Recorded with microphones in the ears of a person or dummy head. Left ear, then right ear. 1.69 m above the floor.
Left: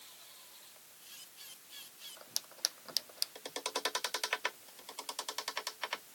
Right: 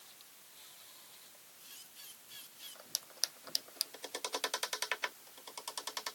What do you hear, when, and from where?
Only background noise.